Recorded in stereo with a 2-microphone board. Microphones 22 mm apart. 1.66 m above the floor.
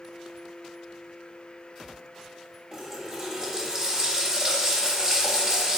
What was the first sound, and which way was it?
A running tap, 30° right (ahead or behind).